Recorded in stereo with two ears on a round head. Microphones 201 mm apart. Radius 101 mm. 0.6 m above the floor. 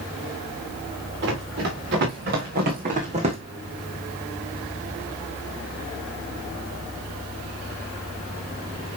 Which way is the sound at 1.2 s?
55° right (ahead or behind).